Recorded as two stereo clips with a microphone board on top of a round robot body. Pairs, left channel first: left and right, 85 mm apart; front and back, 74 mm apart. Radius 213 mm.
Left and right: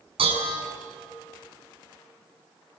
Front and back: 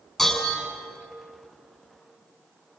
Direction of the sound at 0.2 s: 85° right.